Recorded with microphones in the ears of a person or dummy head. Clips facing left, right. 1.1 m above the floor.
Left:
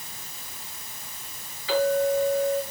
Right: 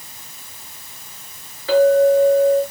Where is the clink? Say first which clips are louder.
Right 10 dB; 45° right (ahead or behind), 8.5 m.